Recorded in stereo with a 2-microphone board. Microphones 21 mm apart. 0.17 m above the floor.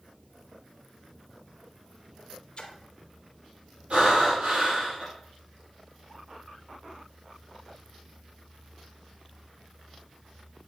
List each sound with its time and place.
2.6 s a splash: 50° left (ahead or behind), 0.9 m
3.9 s breathing: 70° right (ahead or behind), 3.5 m